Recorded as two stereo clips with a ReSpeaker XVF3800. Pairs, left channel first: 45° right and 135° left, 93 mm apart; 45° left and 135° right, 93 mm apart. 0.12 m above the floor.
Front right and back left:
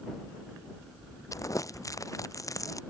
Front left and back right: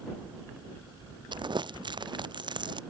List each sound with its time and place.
1.3 s crumpling: 100° right